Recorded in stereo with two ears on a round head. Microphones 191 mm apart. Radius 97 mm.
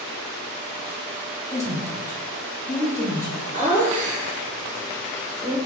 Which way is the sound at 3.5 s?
35° right (ahead or behind).